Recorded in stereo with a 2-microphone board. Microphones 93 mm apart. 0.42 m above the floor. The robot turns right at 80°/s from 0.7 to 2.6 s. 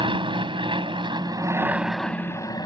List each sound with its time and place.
0.0 s an aircraft: 100° right; by 2.7 s 50° left